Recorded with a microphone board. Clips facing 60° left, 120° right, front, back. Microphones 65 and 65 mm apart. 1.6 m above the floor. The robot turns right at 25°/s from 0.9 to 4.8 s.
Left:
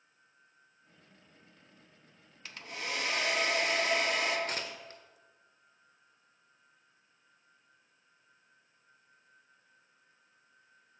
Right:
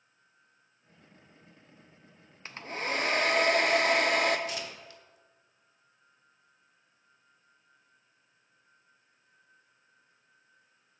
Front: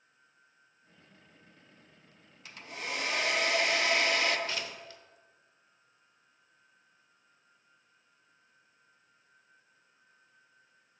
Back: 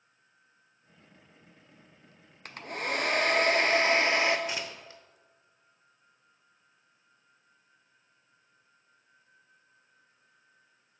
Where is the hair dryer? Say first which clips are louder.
Right 6 dB, back 6 dB; 170° right, 0.5 m; by 4.4 s 120° right, 0.5 m.